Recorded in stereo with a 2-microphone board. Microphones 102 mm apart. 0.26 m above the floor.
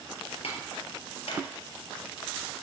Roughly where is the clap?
Left.